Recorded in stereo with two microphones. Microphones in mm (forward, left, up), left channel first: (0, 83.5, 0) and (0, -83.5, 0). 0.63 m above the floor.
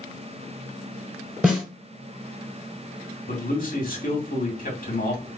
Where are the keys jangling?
I don't hear keys jangling.